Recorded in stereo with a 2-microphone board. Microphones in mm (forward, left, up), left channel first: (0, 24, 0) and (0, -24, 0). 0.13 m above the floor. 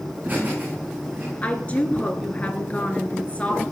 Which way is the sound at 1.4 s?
30° left (ahead or behind).